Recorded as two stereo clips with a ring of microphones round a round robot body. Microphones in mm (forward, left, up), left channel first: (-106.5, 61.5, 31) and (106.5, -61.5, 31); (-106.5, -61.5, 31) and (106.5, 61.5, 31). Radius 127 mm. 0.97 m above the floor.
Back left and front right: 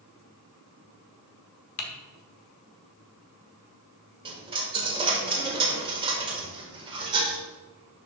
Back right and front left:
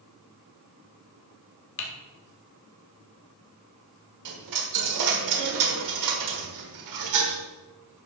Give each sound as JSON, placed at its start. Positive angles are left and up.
{"t": 1.8, "sound": "typing on a keyboard", "azimuth_deg": 170, "distance_m": 1.3}
{"t": 4.2, "sound": "a dropped coin", "azimuth_deg": 40, "distance_m": 1.5}